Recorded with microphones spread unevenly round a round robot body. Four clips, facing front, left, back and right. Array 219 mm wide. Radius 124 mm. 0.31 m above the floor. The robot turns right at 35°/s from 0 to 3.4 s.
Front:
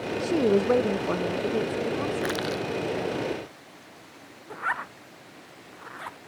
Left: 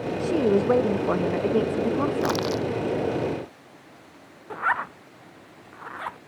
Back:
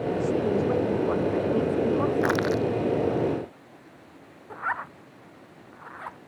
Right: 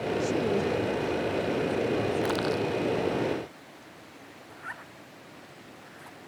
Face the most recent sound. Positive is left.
turn(degrees=65)